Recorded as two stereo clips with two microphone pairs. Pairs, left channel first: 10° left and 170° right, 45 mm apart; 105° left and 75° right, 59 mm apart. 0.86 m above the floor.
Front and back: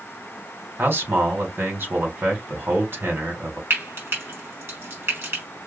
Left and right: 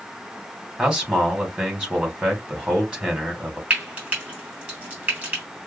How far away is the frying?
About 2.5 m.